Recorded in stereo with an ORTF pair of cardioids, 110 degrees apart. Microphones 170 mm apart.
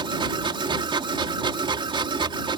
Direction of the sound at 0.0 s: 30° right.